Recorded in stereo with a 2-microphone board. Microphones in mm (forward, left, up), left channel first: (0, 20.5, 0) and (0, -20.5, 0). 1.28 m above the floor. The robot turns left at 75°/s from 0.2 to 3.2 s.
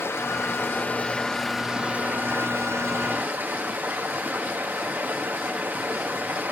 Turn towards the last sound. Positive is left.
turn(degrees=-125)